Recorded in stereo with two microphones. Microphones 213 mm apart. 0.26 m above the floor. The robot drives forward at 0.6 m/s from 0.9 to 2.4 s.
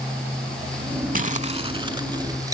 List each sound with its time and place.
1.1 s crumpling: 40° right (ahead or behind), 0.6 m; by 2.5 s 20° right (ahead or behind), 1.2 m